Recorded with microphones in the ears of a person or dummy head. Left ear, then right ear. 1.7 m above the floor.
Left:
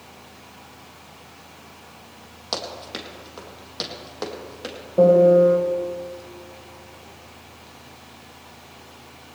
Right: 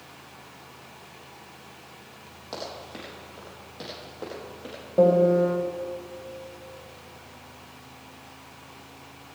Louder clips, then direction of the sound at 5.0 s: Left 6 dB; 10° right (ahead or behind).